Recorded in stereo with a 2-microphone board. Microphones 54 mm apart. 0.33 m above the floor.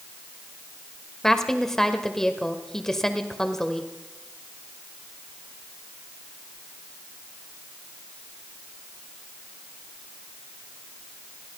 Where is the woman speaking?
10° left (ahead or behind), 1.5 m.